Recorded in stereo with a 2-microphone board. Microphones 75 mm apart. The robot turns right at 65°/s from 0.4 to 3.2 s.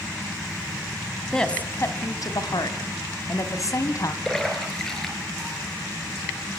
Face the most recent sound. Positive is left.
turn(degrees=5)  # may be behind; listen again after turning